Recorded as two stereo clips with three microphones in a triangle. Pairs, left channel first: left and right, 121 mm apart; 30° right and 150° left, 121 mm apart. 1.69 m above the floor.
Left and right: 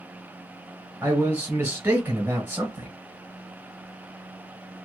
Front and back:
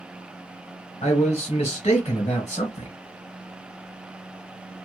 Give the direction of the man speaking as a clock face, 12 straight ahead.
1 o'clock.